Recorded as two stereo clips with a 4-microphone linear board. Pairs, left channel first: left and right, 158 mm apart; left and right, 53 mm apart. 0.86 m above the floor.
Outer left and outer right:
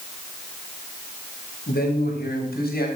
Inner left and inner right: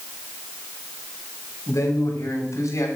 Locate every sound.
1.7 s a man speaking: 85° left, 4 m